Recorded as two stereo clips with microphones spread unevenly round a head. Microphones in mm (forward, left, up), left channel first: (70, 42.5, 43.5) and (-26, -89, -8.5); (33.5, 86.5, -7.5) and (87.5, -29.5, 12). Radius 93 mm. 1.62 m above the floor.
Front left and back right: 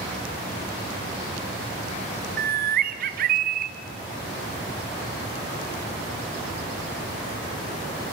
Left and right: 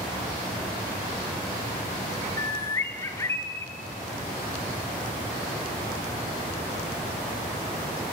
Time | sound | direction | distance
2.4 | a bird | 170° right | 1.0 m